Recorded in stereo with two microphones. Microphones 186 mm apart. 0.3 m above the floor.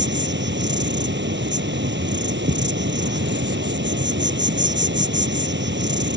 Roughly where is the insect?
Right.